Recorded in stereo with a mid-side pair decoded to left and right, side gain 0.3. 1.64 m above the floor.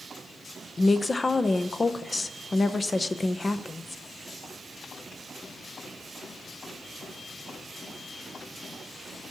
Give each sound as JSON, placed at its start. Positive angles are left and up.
{"t": 0.8, "sound": "a woman speaking", "azimuth_deg": 35, "distance_m": 0.8}